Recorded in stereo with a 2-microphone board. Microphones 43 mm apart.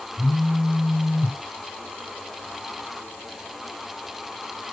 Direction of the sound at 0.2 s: 30° right (ahead or behind).